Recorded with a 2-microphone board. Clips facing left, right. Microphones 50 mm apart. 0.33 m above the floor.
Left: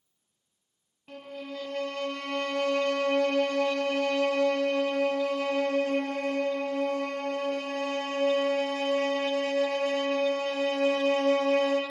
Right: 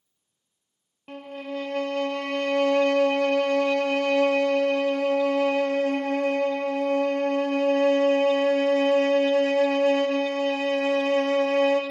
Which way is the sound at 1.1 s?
50° right (ahead or behind).